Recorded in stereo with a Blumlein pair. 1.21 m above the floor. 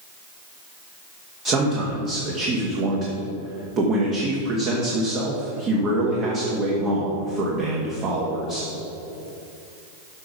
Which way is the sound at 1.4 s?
30° right.